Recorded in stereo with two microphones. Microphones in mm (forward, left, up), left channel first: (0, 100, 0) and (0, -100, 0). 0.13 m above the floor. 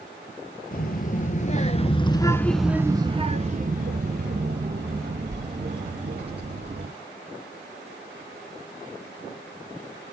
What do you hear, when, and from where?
0.7 s a child speaking: 45° left (ahead or behind), 1.5 m; by 6.9 s 55° right (ahead or behind), 3 m